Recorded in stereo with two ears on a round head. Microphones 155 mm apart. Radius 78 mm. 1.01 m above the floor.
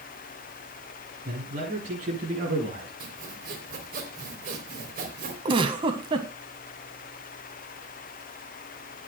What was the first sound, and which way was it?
A man speaking, 45° right (ahead or behind).